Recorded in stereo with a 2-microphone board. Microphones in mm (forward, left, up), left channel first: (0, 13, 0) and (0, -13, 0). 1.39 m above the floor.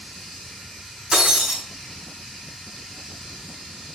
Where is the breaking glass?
25° right (ahead or behind), 3.5 m.